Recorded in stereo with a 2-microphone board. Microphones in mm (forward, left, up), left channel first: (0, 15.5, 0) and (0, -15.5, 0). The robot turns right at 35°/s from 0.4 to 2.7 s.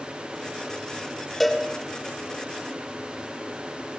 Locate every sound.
1.4 s a cowbell: 10° left (ahead or behind), 2.5 m; by 1.6 s centre (ahead or behind), 2.5 m